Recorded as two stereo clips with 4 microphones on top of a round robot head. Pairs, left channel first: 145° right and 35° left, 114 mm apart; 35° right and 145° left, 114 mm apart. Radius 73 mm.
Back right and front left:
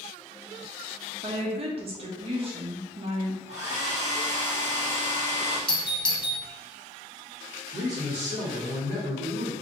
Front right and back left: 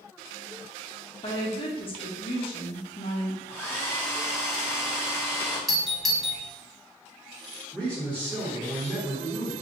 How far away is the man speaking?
About 1.5 m.